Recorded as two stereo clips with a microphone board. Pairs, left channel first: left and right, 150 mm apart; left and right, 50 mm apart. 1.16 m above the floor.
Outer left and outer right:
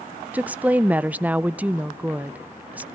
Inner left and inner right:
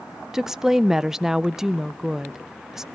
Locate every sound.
0.3 s a woman speaking: 10° right (ahead or behind), 0.5 m